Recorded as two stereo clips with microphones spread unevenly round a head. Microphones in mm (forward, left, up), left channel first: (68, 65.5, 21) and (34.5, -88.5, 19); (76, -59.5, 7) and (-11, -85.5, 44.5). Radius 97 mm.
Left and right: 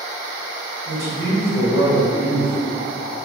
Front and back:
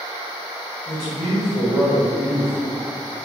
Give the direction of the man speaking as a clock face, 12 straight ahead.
7 o'clock.